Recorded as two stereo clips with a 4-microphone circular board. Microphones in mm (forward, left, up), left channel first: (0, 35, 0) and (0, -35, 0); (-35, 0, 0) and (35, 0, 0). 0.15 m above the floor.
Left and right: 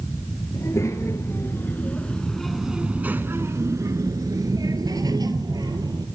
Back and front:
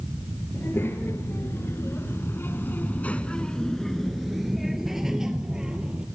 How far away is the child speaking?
About 2.5 m.